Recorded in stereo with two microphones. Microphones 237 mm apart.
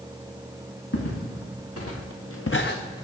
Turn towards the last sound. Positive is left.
turn(degrees=15)  # may be behind; listen again after turning